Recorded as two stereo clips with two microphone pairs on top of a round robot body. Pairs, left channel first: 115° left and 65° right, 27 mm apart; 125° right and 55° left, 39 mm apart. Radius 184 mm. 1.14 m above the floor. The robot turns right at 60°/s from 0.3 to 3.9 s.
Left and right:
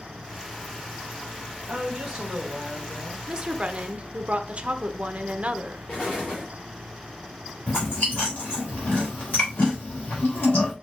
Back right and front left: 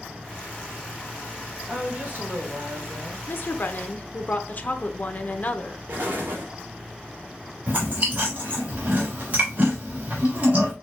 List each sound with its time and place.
1.7 s a woman speaking: 15° right, 2 m; by 3.2 s 75° left, 2 m
3.3 s a woman speaking: 125° right, 0.9 m; by 5.8 s 85° right, 0.9 m
5.9 s an explosion: 90° left, 0.7 m
7.7 s chewing: 110° left, 1.1 m